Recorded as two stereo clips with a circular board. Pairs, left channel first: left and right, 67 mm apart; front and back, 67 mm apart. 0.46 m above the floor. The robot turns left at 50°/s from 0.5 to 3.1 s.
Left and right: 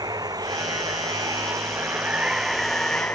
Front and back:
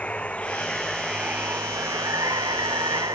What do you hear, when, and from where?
0.0 s running water: 70° right; by 3.2 s 160° left